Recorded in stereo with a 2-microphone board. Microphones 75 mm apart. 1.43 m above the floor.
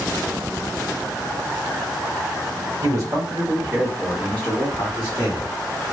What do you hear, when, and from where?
2.8 s a man speaking: 50° right (ahead or behind), 1.4 m; by 5.5 s 65° left (ahead or behind), 1.3 m